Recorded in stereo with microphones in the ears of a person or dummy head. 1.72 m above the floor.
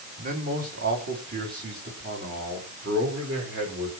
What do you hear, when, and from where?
0.2 s a man speaking: 45° right (ahead or behind), 3.5 m; by 3.9 s 60° right (ahead or behind), 6.5 m